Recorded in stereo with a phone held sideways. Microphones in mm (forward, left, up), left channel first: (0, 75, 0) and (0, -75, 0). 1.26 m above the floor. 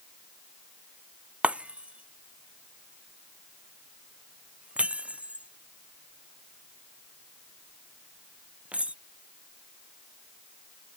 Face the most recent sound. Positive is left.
turn(degrees=-5)  # may be behind; listen again after turning